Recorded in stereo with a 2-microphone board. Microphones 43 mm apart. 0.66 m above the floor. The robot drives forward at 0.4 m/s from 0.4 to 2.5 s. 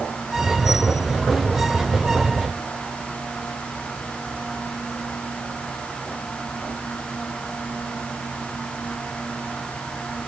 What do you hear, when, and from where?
Only background noise.